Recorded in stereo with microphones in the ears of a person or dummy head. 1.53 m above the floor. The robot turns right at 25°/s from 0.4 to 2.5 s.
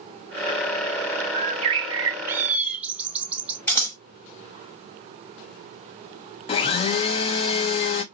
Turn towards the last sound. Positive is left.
turn(degrees=35)  # may be behind; listen again after turning